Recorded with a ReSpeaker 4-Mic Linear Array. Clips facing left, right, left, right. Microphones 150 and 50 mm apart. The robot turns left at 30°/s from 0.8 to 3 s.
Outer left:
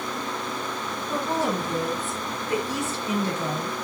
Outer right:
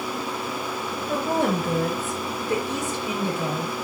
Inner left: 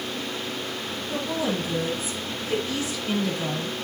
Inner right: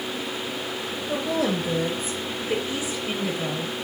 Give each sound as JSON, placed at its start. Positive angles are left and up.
{"t": 1.1, "sound": "a woman speaking", "azimuth_deg": -110, "distance_m": 6.5}